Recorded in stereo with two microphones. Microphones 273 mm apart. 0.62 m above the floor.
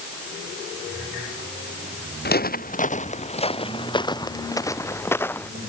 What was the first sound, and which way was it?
Footsteps, 35° left (ahead or behind).